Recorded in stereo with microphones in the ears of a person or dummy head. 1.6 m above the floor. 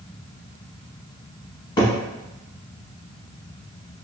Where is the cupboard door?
20° left (ahead or behind), 1.0 m.